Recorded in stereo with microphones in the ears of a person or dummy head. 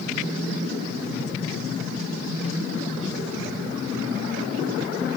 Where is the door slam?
No door slam in this recording.